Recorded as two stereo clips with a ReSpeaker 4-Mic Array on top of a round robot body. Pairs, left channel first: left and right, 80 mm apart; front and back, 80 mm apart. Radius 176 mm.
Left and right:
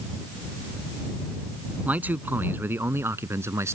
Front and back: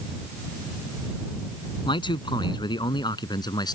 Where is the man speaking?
20° right; by 3.7 s 35° right.